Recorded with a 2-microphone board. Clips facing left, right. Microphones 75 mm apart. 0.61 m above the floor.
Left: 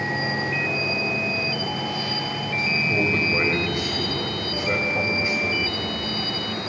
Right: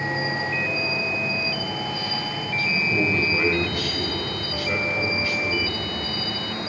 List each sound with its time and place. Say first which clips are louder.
0.0 s an insect: even; 85° left, 7.5 m
2.6 s a man speaking: even; 20° left (ahead or behind), 4 m